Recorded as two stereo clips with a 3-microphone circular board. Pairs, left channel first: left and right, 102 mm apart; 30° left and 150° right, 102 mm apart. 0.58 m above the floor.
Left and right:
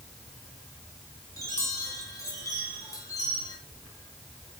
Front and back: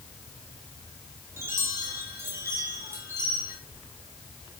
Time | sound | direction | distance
1.4 | a chime | 145° left | 5 m